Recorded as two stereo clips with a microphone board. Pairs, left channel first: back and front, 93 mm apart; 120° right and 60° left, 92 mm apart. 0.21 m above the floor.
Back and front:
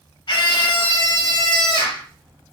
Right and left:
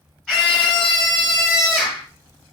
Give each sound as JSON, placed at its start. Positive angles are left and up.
{"t": 0.3, "sound": "a scream", "azimuth_deg": 155, "distance_m": 4.0}